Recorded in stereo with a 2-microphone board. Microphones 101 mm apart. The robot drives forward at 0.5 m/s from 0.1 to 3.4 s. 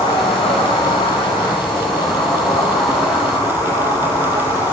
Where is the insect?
70° left (ahead or behind), 0.8 m; by 4.7 s 30° left (ahead or behind), 1.7 m.